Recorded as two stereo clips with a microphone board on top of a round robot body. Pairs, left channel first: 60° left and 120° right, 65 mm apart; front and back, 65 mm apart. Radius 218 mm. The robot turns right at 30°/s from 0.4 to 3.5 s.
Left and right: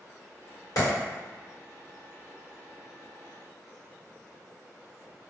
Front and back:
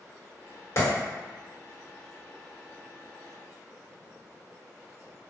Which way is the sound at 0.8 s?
40° left.